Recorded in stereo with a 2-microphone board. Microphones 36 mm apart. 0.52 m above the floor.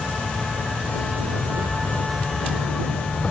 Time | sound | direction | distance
0.0 | an insect | 45° left (ahead or behind) | ?